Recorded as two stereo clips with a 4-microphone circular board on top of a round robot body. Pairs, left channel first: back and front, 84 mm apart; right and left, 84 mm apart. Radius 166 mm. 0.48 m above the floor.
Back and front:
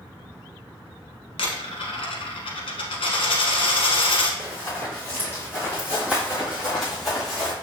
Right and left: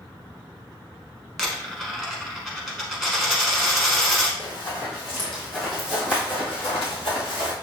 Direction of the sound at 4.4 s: 60° right.